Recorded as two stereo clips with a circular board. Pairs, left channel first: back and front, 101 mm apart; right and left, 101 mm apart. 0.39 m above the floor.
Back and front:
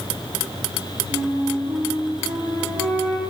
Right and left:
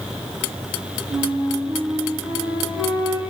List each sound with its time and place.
1.1 s a flute: 35° left, 7.5 m